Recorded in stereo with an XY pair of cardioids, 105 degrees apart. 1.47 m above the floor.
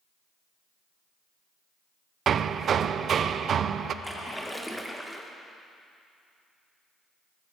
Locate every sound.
2.3 s hammering: 50° right, 0.6 m
4.0 s a splash: 5° left, 1.9 m